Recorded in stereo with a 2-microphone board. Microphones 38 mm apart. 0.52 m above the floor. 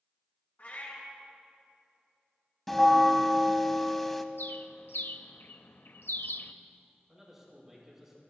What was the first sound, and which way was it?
A cat meowing, 55° left (ahead or behind).